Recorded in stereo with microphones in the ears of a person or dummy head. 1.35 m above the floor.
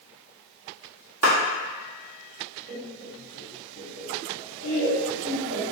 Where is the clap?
70° right (ahead or behind), 1.4 m.